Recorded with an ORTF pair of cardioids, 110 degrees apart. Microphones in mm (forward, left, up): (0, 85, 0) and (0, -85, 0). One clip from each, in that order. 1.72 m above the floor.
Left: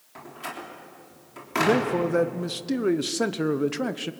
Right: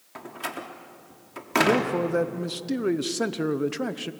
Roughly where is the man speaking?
Ahead.